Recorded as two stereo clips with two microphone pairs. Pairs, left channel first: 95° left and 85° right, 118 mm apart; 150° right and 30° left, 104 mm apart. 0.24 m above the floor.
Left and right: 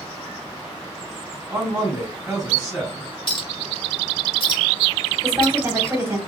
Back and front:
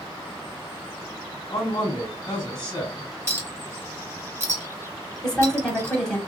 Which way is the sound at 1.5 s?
160° right.